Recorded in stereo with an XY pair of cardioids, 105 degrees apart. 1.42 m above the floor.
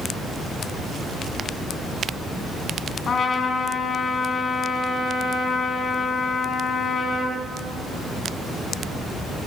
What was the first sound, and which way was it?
A trumpet, 45° left.